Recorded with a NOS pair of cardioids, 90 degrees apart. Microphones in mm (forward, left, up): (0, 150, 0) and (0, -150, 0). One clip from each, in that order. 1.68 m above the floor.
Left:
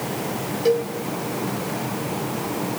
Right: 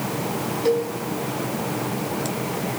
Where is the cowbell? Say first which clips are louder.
Left 1 dB; 5° left, 1.9 m.